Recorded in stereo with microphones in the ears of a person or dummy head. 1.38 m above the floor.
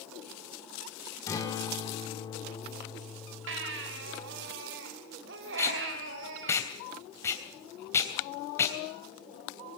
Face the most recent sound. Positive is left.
turn(degrees=20)  # may be behind; listen again after turning